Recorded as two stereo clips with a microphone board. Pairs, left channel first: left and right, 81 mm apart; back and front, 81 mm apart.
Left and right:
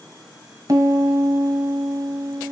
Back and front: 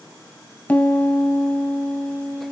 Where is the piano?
115° right, 2.5 m.